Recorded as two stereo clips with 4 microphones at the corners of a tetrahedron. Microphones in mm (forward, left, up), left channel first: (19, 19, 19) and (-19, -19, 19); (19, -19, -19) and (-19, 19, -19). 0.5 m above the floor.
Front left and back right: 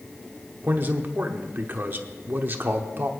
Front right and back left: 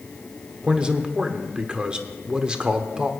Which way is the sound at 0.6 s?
160° right.